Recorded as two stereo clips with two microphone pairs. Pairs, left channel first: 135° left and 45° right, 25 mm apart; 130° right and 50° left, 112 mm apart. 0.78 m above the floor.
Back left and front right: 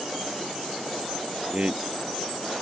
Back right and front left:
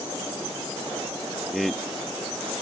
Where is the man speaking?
40° right.